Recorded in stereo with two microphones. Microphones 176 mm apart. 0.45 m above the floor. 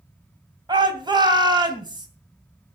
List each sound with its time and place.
0.7 s a shout: 25° right (ahead or behind), 2.5 m